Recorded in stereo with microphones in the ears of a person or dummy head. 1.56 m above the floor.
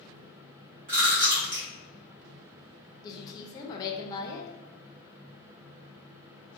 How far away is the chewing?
About 1.2 m.